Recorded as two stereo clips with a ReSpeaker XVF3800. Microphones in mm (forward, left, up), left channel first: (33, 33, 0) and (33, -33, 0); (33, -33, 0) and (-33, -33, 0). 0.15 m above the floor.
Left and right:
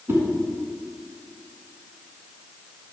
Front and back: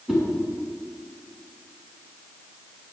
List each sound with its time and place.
0.1 s a whoosh: 100° right, 1.5 m